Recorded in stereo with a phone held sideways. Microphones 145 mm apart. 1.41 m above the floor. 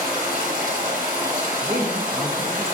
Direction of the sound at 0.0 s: 65° right (ahead or behind).